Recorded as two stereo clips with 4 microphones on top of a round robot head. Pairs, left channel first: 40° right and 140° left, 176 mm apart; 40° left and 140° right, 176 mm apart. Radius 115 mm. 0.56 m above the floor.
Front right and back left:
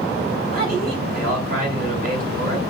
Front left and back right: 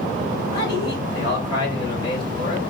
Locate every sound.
0.5 s a man speaking: 105° left, 4.5 m